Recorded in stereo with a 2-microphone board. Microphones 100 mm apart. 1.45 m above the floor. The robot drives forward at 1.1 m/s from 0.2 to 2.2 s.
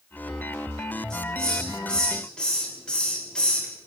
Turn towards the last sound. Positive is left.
turn(degrees=10)  # may be behind; listen again after turning